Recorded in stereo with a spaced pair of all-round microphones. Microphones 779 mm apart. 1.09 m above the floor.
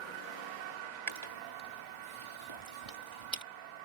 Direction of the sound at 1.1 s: 35° right (ahead or behind).